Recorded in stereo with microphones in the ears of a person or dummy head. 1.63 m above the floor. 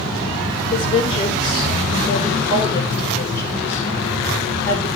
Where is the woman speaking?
30° left (ahead or behind), 6 m; by 4.9 s 5° left (ahead or behind), 5 m.